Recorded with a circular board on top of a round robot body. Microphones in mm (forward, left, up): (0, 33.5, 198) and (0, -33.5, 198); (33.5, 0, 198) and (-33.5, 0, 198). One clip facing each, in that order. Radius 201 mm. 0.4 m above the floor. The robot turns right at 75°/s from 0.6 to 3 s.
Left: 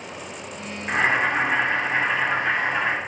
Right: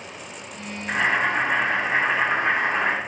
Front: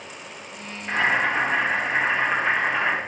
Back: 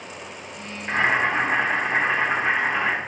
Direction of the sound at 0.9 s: 120° left.